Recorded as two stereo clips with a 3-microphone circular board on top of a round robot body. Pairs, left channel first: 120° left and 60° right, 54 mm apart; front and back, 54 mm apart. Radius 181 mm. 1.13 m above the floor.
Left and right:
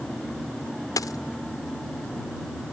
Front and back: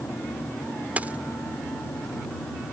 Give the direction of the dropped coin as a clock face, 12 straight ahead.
8 o'clock.